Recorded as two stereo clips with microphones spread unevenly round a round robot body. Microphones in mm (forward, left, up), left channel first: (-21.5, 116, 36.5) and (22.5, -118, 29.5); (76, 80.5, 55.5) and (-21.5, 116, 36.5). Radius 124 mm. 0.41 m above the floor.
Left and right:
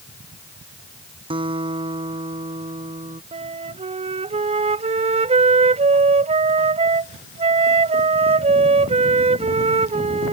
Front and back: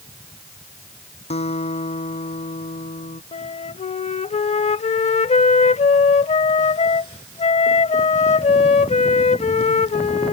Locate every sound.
1.3 s a guitar: 10° right
3.3 s a flute: 15° right